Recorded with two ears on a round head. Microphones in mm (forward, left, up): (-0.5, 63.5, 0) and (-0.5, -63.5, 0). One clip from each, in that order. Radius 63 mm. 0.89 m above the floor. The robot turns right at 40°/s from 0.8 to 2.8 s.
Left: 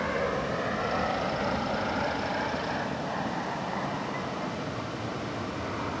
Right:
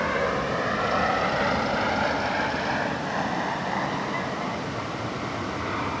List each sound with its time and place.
0.0 s an aircraft: 20° right (ahead or behind); by 6.0 s 65° right (ahead or behind)